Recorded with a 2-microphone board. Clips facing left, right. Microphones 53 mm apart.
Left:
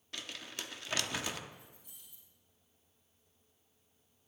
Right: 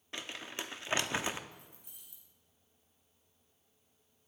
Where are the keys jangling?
80° right, 5 m.